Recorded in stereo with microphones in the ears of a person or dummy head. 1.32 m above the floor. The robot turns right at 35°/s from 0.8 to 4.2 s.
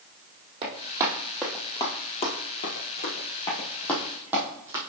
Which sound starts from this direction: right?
Running footsteps, at 0.6 s.